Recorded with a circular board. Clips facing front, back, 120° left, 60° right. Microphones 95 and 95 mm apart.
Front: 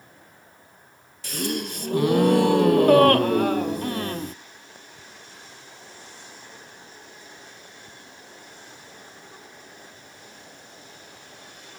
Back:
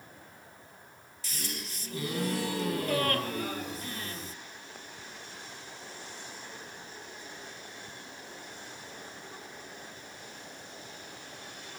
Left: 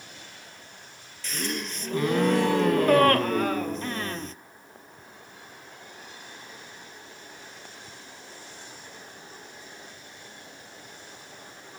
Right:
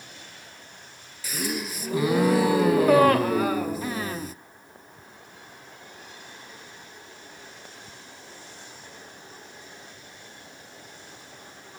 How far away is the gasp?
About 0.5 m.